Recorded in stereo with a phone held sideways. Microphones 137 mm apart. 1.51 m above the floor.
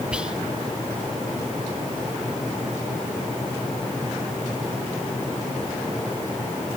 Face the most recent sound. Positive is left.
turn(degrees=-10)  # may be behind; listen again after turning